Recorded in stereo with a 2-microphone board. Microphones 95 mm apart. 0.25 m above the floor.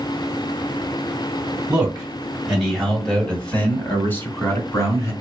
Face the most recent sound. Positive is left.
turn(degrees=35)  # may be behind; listen again after turning